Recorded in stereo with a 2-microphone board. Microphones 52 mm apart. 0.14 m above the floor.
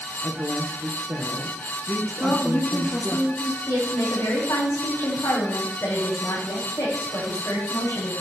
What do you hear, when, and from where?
0.2 s a woman speaking: 45° right (ahead or behind), 3 m
2.2 s a woman speaking: 35° left (ahead or behind), 1.5 m
3.7 s a woman speaking: 75° left (ahead or behind), 8 m